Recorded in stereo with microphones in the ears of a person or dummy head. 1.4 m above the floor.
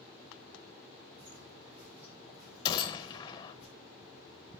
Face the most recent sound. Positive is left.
turn(degrees=25)  # may be behind; listen again after turning